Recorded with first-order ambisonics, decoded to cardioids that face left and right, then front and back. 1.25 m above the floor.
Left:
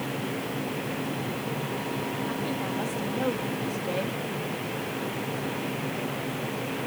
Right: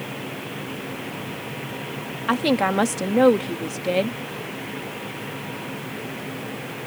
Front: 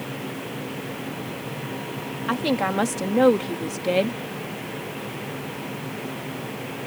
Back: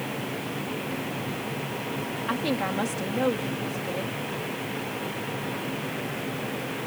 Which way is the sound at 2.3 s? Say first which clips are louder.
Right 10 dB, front 5 dB; 75° right.